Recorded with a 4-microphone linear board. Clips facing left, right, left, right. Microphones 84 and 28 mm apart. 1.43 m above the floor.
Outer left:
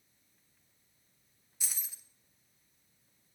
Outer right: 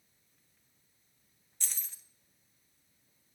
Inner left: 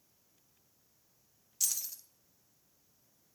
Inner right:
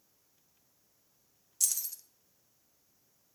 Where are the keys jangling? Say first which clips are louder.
Even, inner right 1 dB; 10° left (ahead or behind), 0.6 m.